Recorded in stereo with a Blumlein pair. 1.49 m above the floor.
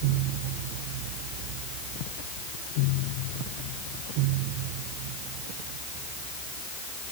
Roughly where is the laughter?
No laughter in this recording.